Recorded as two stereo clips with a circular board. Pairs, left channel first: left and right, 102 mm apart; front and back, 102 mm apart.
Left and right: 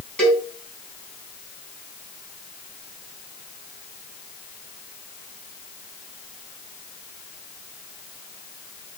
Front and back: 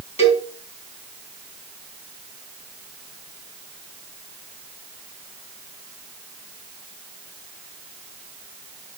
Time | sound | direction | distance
0.2 | a cowbell | 10° left | 3 m